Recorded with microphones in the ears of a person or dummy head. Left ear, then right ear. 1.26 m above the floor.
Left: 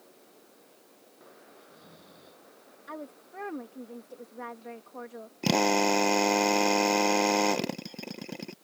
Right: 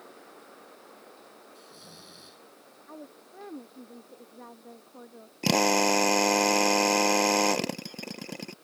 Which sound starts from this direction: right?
Snoring, at 1.6 s.